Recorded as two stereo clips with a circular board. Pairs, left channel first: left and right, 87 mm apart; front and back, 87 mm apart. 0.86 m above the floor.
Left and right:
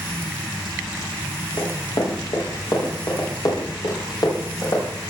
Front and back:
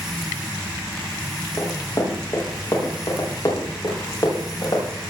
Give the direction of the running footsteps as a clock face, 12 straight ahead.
10 o'clock.